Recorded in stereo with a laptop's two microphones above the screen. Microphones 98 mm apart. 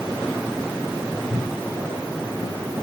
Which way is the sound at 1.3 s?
80° right.